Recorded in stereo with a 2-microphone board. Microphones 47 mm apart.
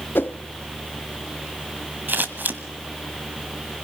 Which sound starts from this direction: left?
A whoosh, at 0.1 s.